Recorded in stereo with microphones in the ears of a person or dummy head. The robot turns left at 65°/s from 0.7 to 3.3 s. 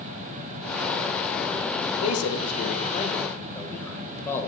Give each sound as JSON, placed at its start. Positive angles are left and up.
{"t": 2.0, "sound": "a man speaking", "side_deg": 75, "distance_m": 1.3}